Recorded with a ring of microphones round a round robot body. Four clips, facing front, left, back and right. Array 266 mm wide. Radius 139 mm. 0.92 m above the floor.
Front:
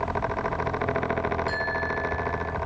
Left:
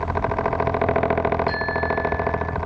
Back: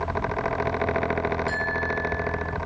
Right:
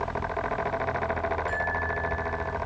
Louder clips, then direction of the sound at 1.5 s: Left 6 dB, back 1 dB; 95° left.